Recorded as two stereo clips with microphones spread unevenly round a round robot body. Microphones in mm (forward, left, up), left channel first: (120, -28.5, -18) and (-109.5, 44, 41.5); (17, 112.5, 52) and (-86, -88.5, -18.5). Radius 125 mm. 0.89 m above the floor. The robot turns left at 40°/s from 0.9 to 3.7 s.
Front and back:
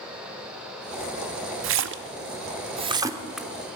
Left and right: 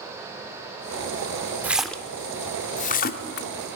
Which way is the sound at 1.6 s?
150° left.